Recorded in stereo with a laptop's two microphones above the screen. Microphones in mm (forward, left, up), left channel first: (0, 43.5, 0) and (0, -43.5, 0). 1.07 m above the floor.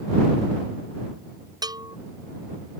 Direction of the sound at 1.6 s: 50° right (ahead or behind).